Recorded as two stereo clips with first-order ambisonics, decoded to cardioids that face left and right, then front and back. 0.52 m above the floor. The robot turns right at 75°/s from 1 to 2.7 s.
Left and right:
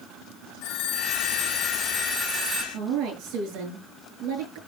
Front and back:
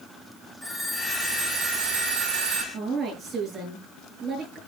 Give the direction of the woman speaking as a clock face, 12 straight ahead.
4 o'clock.